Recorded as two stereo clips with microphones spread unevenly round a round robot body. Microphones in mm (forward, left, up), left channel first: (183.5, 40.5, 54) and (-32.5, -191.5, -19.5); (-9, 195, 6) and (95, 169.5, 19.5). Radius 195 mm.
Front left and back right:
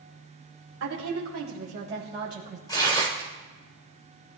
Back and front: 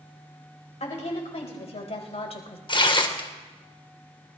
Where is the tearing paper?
135° left, 1.9 m.